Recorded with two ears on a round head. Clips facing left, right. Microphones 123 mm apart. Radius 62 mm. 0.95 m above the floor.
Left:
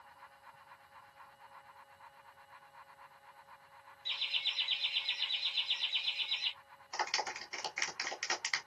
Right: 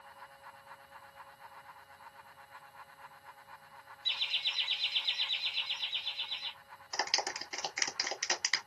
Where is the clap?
55° right (ahead or behind), 1.6 m.